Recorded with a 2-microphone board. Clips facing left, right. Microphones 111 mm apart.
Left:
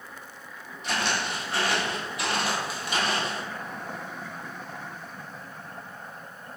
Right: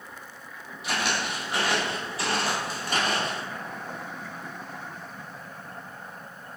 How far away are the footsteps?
About 1.3 m.